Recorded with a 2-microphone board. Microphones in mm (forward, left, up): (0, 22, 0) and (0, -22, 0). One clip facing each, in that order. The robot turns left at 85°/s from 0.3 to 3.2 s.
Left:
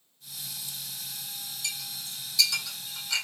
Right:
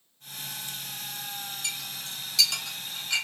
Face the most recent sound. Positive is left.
turn(degrees=-20)  # may be behind; listen again after turning